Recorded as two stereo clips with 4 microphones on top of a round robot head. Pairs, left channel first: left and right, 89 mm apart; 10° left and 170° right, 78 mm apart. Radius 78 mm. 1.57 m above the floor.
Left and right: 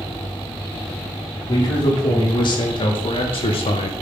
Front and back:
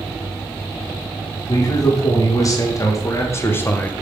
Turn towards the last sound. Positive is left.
turn(degrees=80)